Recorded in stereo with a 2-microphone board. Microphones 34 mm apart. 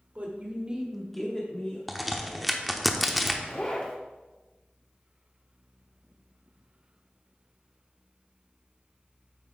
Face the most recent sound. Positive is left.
turn(degrees=30)  # may be behind; listen again after turning